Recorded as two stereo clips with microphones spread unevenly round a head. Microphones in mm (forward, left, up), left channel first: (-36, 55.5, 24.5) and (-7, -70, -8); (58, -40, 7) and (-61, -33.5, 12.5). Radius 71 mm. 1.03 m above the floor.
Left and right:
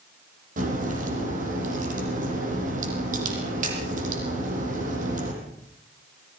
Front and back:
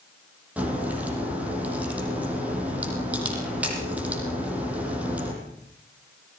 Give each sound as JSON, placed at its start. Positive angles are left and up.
{"t": 0.6, "sound": "a crack", "azimuth_deg": -105, "distance_m": 7.5}